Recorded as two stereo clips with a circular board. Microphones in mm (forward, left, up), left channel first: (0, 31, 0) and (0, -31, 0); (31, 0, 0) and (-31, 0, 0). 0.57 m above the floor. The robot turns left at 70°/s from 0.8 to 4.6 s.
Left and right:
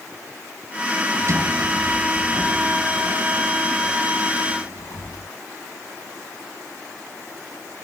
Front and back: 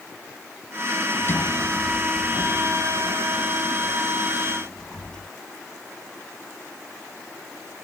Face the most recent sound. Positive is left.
turn(degrees=75)